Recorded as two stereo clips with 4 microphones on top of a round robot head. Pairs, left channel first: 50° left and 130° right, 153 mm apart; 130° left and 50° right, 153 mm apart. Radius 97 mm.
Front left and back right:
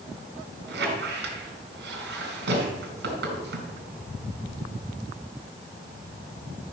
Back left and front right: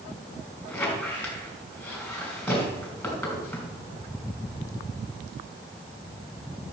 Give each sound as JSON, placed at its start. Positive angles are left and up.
{"t": 0.7, "sound": "a squeak", "azimuth_deg": -150, "distance_m": 3.0}